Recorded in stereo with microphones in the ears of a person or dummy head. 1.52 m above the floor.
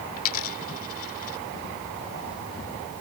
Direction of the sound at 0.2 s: 45° left (ahead or behind).